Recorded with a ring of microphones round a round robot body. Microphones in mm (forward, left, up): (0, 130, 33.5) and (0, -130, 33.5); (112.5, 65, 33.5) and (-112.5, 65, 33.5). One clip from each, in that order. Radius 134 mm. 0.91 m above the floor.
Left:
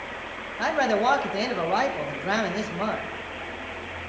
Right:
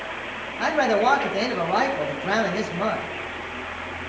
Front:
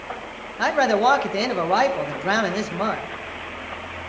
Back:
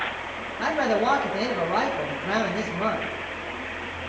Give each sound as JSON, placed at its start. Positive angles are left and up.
{"t": 0.6, "sound": "a man speaking", "azimuth_deg": 10, "distance_m": 0.8}